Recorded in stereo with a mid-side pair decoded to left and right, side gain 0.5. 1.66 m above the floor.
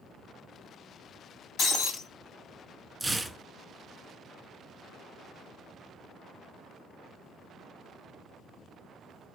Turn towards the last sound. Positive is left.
turn(degrees=-10)